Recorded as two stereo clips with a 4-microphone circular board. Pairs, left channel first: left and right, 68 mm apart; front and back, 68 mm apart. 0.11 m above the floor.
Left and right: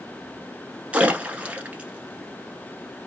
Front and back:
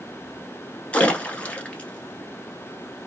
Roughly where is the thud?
No thud in this recording.